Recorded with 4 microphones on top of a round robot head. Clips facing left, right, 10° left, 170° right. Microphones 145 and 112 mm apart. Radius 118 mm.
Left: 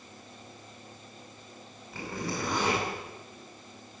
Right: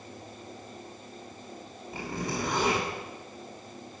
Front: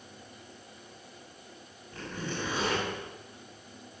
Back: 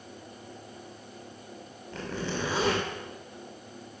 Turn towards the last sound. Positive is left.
turn(degrees=-165)